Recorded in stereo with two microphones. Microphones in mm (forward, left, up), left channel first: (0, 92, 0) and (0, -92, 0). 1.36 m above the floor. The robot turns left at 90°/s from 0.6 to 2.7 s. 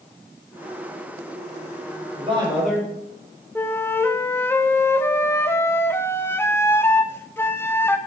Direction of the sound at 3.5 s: 10° left (ahead or behind).